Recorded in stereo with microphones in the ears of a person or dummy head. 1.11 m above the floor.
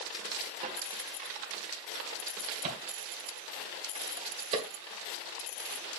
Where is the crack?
40° right (ahead or behind), 2 m.